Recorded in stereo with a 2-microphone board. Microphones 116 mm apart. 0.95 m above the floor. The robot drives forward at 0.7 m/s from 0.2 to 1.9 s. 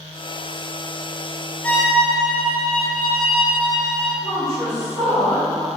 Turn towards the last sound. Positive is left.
turn(degrees=45)  # may be behind; listen again after turning